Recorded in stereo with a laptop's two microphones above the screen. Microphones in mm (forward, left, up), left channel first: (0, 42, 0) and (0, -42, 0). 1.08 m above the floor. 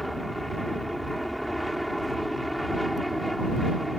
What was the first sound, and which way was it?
An aircraft, centre (ahead or behind).